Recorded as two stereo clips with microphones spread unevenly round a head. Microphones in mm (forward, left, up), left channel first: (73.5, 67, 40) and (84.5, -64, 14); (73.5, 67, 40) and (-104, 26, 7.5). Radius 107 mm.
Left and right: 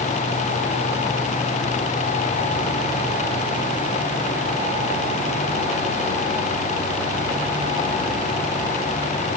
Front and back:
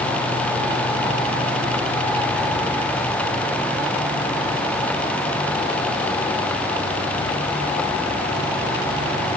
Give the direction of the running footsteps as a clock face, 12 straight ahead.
I don't hear running footsteps.